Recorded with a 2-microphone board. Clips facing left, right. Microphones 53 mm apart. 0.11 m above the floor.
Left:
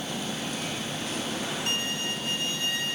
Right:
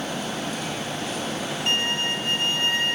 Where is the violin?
45° right (ahead or behind), 0.6 m.